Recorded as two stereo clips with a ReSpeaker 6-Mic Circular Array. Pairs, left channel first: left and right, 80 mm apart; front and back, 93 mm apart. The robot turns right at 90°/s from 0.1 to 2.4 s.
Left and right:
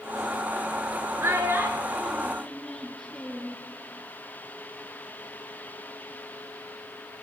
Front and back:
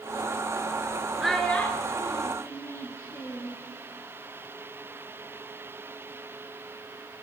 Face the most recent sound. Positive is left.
turn(degrees=15)